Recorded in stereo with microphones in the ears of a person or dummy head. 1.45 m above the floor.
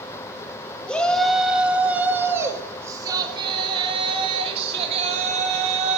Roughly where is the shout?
Centre.